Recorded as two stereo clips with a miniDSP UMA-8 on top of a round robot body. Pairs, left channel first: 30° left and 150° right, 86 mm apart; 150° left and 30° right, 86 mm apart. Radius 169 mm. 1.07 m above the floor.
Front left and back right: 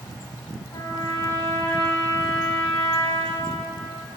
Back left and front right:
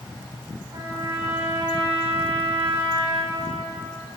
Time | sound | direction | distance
0.7 | a trumpet | 10° right | 6.5 m